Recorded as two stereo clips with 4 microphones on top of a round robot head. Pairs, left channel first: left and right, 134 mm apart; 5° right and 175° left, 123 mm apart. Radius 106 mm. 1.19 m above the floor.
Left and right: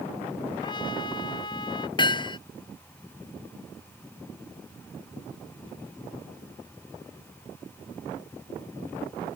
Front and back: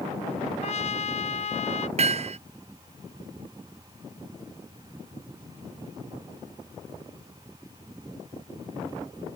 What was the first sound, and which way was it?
A trumpet, 25° left.